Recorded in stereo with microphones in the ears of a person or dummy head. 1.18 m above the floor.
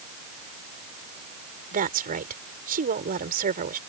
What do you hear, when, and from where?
1.7 s a woman speaking: 40° right (ahead or behind)